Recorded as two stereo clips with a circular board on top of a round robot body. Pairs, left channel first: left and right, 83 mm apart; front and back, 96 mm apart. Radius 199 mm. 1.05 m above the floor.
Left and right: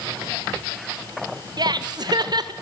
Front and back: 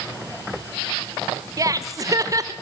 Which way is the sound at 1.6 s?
125° right.